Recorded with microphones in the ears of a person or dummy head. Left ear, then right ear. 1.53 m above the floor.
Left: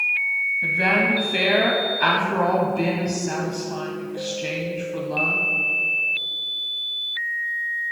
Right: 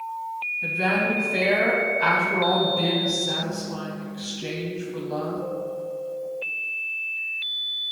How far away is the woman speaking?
About 0.6 m.